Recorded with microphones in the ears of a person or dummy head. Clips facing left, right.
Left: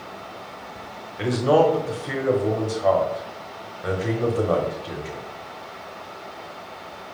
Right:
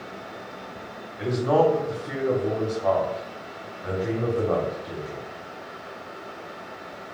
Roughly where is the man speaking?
Left.